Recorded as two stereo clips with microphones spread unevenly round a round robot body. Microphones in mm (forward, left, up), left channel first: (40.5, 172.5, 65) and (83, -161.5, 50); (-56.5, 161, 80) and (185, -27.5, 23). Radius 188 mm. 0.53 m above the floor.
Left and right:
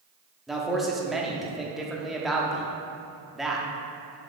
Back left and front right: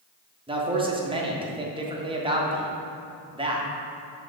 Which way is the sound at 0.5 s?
5° left.